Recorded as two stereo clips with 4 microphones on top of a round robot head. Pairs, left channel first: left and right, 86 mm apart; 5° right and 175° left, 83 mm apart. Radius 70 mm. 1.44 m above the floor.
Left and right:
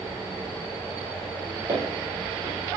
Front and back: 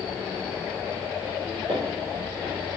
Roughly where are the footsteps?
Behind right.